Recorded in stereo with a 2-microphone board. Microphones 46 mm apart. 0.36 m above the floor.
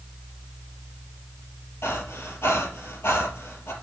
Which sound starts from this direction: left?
Breathing, at 1.8 s.